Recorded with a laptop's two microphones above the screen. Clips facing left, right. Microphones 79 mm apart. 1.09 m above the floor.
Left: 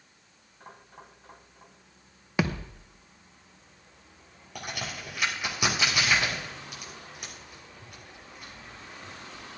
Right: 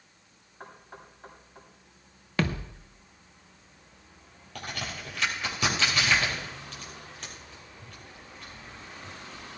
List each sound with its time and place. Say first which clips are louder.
0.6 s knocking: right 2 dB; 55° right (ahead or behind), 6.5 m
2.4 s a thud: left 1 dB; 10° left (ahead or behind), 0.8 m
4.5 s a crack: even; 10° left (ahead or behind), 7 m